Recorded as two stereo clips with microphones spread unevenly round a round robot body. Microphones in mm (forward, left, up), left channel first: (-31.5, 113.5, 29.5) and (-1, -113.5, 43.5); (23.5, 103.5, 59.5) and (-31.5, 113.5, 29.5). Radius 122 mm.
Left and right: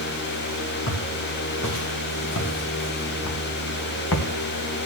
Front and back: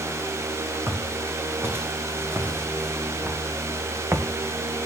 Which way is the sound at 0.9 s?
120° left.